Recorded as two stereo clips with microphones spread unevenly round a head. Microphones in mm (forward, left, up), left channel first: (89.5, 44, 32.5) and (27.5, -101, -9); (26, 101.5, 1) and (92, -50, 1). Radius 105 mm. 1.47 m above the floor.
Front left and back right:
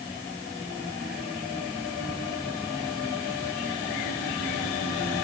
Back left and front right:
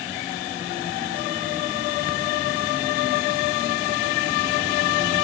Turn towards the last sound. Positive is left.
No sound to turn to.